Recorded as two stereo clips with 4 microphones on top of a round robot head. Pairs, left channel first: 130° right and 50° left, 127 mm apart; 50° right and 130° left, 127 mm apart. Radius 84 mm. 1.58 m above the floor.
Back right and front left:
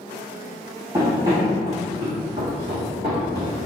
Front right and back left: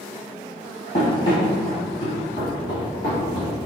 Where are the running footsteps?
10° right, 2.0 m; by 3.5 s 10° left, 3 m.